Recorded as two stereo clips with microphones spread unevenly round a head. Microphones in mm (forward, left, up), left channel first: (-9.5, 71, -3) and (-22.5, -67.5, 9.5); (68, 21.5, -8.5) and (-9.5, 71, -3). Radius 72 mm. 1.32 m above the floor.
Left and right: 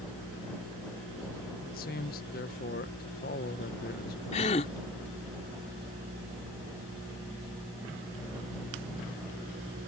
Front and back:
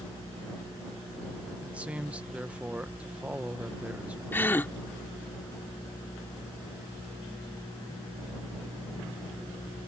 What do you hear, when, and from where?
1.6 s a man speaking: 70° left
4.3 s a gasp: 35° left